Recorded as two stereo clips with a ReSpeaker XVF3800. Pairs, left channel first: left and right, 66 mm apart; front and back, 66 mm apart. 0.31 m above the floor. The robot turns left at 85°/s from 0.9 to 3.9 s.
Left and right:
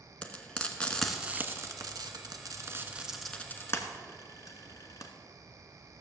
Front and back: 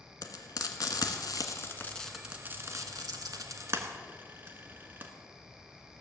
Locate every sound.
0.2 s frying: 15° left, 1.3 m; by 5.1 s 120° left, 1.3 m